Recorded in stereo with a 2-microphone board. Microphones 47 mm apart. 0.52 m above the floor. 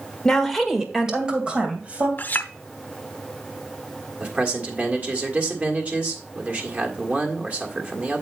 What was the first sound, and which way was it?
A woman speaking, 10° left (ahead or behind).